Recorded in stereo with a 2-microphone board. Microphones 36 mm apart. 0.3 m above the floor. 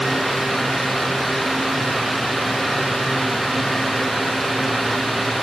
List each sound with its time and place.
Only background noise.